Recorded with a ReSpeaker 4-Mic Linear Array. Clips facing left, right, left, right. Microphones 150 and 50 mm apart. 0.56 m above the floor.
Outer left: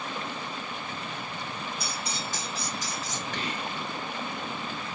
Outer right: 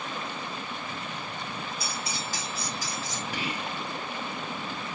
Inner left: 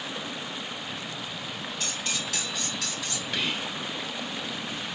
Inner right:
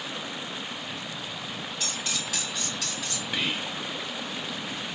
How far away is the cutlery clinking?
About 2 m.